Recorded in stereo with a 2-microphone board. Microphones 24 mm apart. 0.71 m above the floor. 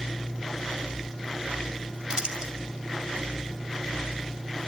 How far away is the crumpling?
About 1.8 m.